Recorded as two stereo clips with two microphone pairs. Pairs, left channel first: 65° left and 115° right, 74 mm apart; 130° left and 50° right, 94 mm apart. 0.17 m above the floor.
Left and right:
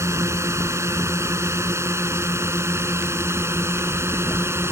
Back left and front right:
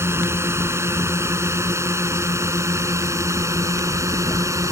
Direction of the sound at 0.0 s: 95° right.